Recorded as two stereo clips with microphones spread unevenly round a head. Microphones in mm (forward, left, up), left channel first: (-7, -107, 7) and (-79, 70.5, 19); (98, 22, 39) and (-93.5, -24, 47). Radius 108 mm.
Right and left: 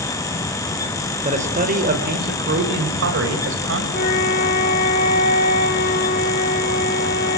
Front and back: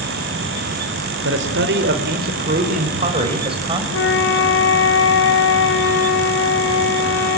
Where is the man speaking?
165° left, 4 m; by 3.8 s 125° left, 6 m.